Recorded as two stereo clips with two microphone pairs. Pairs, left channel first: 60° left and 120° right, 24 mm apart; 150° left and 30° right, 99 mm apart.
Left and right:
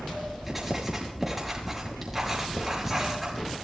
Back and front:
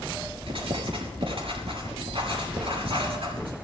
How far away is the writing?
About 5.5 m.